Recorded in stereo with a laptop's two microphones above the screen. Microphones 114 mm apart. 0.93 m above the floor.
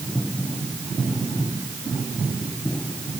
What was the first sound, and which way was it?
Only background noise.